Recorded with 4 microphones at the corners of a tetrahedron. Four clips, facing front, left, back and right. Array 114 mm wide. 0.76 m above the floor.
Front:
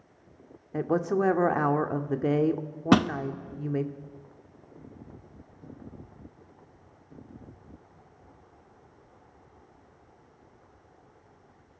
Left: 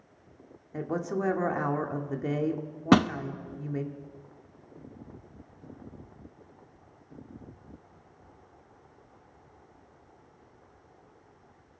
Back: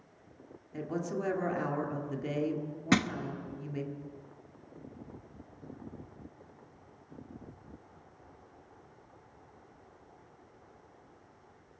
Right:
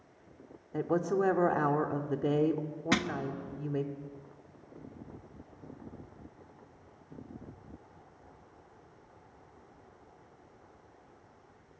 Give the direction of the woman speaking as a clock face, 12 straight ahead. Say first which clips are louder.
Right 2 dB, front 10 dB; 1 o'clock.